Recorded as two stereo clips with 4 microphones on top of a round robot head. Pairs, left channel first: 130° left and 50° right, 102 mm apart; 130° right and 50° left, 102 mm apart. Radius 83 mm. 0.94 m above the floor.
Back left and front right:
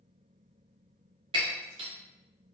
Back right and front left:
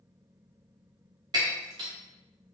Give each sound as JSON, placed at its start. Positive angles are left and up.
{"t": 1.3, "sound": "breaking glass", "azimuth_deg": -5, "distance_m": 0.6}